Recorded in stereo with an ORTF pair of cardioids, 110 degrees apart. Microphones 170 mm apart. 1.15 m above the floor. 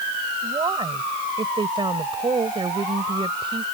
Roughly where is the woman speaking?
Ahead right.